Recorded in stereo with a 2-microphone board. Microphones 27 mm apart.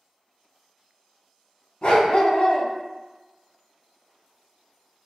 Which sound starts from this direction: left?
A dog barking, at 1.8 s.